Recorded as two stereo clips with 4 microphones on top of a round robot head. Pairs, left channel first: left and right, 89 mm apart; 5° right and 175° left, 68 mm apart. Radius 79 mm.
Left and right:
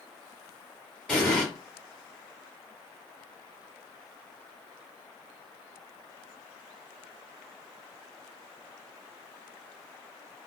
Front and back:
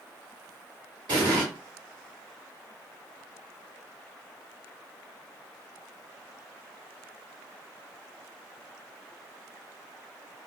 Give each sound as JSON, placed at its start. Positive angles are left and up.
{"t": 1.1, "sound": "an explosion", "azimuth_deg": 170, "distance_m": 1.4}